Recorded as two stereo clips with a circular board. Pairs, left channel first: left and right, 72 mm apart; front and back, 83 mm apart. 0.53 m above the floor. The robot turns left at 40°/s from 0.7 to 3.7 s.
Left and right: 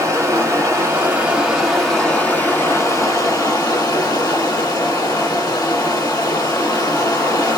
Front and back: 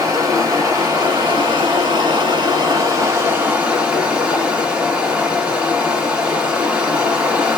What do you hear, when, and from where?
0.0 s running water: 135° right, 1.1 m; by 7.6 s 105° left, 1.1 m